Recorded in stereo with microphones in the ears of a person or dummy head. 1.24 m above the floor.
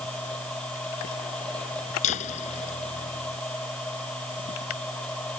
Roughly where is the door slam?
Left.